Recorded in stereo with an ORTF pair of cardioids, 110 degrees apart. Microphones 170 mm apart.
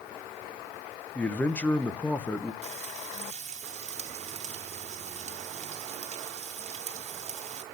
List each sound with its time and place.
1.1 s a man speaking: 10° left, 0.8 m
2.6 s frying: 40° right, 1.9 m